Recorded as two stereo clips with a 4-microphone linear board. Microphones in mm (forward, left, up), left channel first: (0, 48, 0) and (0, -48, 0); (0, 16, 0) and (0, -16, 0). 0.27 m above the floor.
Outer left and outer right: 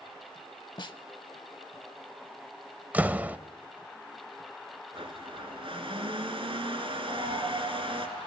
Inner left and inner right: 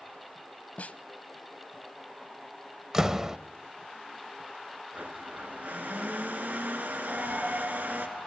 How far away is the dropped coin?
About 9 m.